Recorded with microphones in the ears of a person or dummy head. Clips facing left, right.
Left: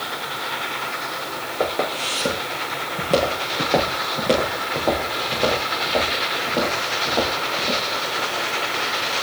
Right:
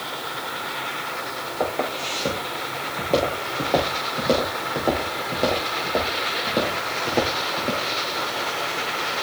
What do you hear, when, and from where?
1.6 s footsteps: 15° left (ahead or behind), 5 m; by 7.8 s 35° right (ahead or behind), 4 m